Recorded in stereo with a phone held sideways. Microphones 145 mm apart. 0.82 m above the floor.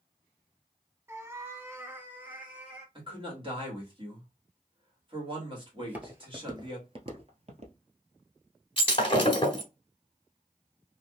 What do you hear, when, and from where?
1.1 s a cat meowing: 20° right (ahead or behind), 0.7 m; by 2.9 s 10° right (ahead or behind), 2.0 m
3.0 s a man speaking: 35° right (ahead or behind), 2 m
5.8 s footsteps: 5° right (ahead or behind), 1.1 m; by 7.8 s 50° right (ahead or behind), 1.3 m
8.8 s breaking glass: 35° left (ahead or behind), 1.5 m